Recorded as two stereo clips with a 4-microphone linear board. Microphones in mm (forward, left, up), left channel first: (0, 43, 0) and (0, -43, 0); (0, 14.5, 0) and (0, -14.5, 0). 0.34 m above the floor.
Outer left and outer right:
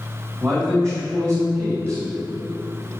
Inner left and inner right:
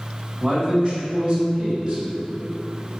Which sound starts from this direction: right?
A man speaking, at 0.4 s.